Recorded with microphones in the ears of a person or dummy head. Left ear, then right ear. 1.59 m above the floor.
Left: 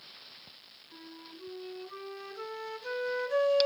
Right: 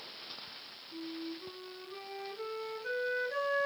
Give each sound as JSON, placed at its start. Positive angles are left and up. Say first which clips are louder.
{"t": 0.9, "sound": "a flute", "louder": "right 7 dB", "side_deg": 30, "distance_m": 3.5}